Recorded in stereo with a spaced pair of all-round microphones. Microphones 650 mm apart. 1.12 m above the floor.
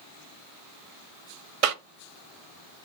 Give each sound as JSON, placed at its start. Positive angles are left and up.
{"t": 1.6, "sound": "a cough", "side_deg": -60, "distance_m": 0.6}